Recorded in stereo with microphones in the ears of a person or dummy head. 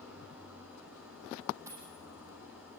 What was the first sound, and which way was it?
An engine running, 10° right (ahead or behind).